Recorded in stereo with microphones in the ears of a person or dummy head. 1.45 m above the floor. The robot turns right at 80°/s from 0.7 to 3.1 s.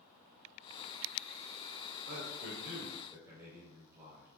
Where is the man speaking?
100° right, 4 m; by 4.3 s 20° right, 4 m.